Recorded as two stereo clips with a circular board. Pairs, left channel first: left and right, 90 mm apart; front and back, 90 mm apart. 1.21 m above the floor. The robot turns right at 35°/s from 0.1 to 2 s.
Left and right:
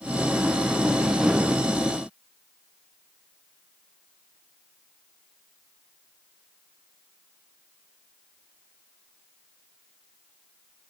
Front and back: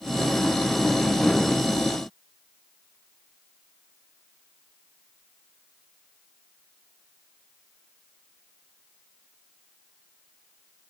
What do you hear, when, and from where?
Only background noise.